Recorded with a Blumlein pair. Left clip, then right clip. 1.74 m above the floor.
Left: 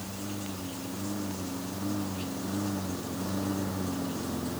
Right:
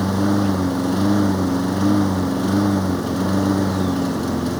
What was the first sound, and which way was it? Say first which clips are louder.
A lawn mower: right 18 dB; 50° right.